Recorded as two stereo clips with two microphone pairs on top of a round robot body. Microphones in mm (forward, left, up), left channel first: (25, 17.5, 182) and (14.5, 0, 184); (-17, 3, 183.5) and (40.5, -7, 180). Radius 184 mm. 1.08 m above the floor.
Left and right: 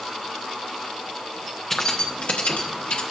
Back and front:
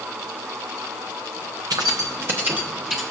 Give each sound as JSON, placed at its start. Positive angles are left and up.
{"t": 1.7, "sound": "keys jangling", "azimuth_deg": -20, "distance_m": 0.7}